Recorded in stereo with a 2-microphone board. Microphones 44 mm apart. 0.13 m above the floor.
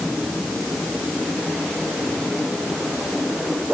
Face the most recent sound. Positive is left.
No sound to turn to.